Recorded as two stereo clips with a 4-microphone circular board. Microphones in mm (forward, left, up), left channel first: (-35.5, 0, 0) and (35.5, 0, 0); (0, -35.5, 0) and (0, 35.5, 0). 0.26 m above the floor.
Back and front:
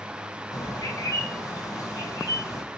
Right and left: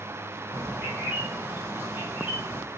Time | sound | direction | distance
0.5 | a bird | 155° left | 1.7 m